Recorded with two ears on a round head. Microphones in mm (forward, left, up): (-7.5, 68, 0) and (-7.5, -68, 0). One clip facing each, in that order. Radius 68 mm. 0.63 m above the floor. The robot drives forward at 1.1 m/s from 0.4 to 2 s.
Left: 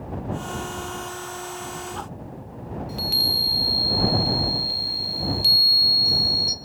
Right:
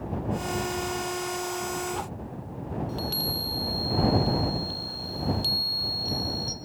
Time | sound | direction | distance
2.9 | a chime | 15° left (ahead or behind) | 0.9 m